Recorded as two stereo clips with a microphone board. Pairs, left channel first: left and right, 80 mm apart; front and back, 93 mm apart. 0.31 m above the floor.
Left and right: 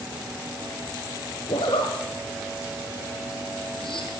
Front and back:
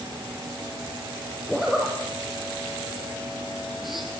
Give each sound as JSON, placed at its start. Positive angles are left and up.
{"t": 1.5, "sound": "a zipper", "azimuth_deg": 90, "distance_m": 3.0}